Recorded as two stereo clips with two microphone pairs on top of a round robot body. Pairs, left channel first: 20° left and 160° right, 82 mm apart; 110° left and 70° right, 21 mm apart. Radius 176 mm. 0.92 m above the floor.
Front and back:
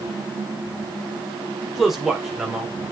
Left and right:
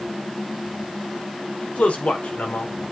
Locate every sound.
1.6 s a man speaking: 115° left, 4.5 m